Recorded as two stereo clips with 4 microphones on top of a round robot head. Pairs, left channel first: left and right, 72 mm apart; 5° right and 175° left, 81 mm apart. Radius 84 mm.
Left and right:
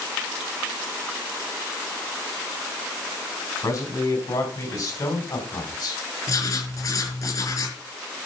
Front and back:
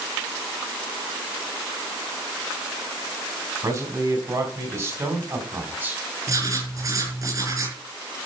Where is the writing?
125° left, 5.5 m.